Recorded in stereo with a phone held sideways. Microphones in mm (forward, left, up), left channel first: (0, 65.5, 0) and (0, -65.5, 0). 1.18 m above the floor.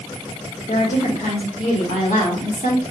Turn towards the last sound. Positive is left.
turn(degrees=75)  # may be behind; listen again after turning